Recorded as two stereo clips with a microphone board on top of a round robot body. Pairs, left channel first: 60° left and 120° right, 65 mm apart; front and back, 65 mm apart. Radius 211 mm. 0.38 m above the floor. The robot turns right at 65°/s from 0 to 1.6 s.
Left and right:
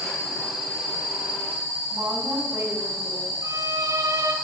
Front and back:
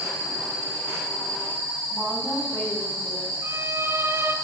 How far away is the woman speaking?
About 4 m.